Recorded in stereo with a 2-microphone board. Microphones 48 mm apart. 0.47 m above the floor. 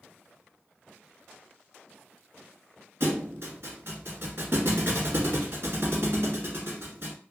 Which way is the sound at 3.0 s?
55° right (ahead or behind).